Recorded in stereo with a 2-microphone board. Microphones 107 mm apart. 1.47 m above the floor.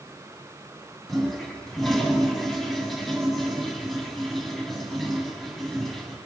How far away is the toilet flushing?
About 8 m.